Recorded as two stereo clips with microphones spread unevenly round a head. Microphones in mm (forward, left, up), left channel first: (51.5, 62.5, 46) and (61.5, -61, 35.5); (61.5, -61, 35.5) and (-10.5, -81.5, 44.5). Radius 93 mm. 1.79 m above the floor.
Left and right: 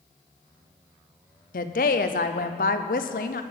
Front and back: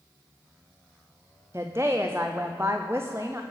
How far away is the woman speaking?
About 0.6 m.